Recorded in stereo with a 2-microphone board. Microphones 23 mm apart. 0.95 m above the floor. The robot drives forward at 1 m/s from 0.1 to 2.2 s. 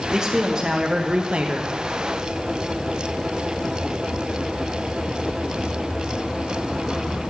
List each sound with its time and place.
0.1 s a man speaking: 25° right (ahead or behind), 1.7 m; by 1.7 s 55° right (ahead or behind), 0.9 m